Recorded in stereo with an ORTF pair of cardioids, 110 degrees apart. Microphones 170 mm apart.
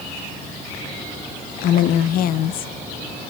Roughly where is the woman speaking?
Ahead left.